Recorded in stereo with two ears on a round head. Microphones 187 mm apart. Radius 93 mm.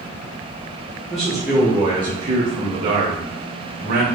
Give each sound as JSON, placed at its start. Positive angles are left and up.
{"t": 1.1, "sound": "a man speaking", "side_deg": 0, "distance_m": 1.0}